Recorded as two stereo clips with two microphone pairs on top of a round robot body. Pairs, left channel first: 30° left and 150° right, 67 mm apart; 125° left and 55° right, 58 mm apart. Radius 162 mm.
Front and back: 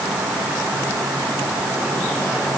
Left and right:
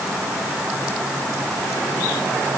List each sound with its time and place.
Only background noise.